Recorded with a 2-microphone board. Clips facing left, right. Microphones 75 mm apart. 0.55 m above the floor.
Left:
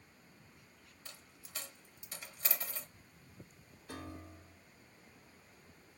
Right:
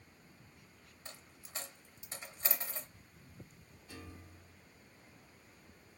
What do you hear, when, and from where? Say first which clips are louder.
1.1 s a dropped coin: right 3 dB; 30° right (ahead or behind), 0.6 m
3.9 s a piano: left 5 dB; 65° left (ahead or behind), 0.6 m